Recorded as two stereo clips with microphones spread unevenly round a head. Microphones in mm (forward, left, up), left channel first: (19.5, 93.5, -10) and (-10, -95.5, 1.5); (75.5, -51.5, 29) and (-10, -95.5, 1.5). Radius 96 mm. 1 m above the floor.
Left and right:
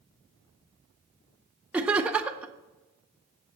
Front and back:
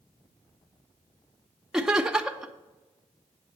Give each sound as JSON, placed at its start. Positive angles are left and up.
{"t": 1.7, "sound": "laughter", "azimuth_deg": 180, "distance_m": 0.6}